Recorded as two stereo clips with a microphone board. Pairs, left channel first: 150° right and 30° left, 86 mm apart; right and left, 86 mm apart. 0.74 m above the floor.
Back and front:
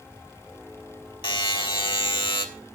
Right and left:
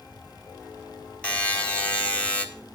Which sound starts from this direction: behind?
A buzzer, at 1.2 s.